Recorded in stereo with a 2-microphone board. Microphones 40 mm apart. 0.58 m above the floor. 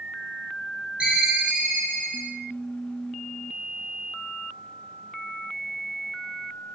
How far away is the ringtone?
About 1.4 m.